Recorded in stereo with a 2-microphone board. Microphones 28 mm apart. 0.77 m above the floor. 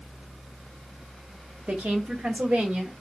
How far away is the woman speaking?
About 1.4 m.